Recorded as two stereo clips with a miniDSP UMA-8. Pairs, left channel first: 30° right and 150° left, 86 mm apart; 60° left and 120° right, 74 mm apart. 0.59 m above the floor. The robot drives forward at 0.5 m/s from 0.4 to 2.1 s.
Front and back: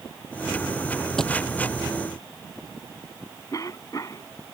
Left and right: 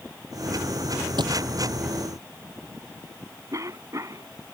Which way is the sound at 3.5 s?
75° right.